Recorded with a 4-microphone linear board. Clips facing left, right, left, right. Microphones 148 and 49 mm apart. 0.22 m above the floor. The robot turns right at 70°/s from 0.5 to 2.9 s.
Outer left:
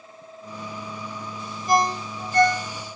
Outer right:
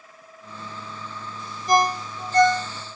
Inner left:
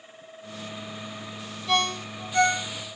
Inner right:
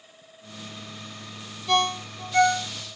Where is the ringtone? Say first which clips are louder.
Outer right 1 dB, inner right 2 dB; 5° left (ahead or behind), 1.5 m; by 2.7 s 60° right (ahead or behind), 1.5 m.